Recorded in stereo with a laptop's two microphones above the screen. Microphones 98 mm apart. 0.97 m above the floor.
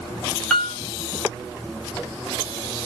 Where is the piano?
10° left (ahead or behind), 0.7 m.